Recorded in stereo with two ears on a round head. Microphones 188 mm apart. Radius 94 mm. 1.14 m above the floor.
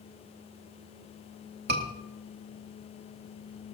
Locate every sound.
1.7 s a scream: 55° right (ahead or behind), 2.5 m